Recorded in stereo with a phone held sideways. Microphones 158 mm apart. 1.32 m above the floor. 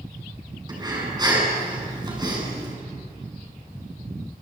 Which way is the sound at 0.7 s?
30° right (ahead or behind).